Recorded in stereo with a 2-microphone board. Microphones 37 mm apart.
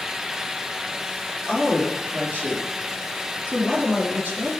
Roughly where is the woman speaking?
Right.